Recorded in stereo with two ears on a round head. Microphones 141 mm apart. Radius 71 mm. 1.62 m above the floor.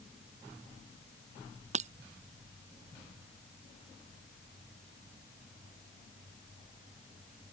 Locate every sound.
1.7 s breaking glass: 50° right (ahead or behind)